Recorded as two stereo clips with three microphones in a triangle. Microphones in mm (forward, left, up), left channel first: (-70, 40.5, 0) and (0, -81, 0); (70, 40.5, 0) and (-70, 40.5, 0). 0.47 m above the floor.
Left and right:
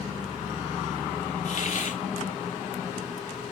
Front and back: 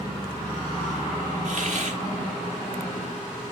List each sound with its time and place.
1.4 s a hiss: 150° left, 0.9 m